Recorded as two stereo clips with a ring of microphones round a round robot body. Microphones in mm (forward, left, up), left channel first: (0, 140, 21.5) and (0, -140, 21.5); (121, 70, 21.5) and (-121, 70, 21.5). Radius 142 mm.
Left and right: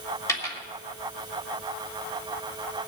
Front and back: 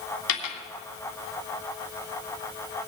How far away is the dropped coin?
About 1.9 m.